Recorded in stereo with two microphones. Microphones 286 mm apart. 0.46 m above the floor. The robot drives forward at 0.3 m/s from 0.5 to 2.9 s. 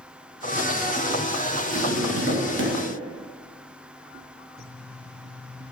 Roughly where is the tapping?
Right.